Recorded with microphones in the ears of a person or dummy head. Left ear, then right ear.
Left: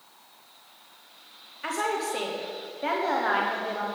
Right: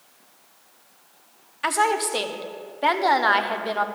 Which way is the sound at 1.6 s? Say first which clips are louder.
Right 7 dB; 30° right (ahead or behind).